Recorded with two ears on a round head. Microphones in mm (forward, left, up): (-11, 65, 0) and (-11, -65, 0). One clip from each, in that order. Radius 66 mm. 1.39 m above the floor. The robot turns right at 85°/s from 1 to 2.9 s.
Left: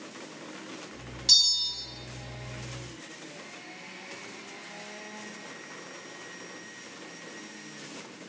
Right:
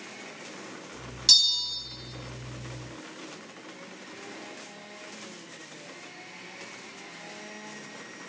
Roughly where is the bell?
Ahead right.